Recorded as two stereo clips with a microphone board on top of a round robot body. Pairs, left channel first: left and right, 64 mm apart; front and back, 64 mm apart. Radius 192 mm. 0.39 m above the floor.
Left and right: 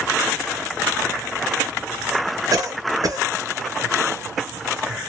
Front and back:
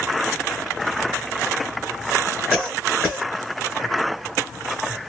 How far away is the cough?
About 1.6 m.